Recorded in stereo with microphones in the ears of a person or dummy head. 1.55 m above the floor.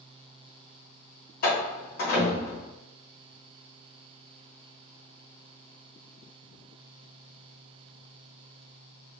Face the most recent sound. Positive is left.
turn(degrees=50)  # may be behind; listen again after turning